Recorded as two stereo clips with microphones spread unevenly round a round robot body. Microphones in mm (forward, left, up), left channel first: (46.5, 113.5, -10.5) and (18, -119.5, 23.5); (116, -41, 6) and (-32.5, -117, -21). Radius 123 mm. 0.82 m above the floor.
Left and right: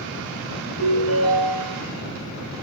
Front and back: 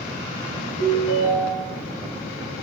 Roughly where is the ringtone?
Ahead left.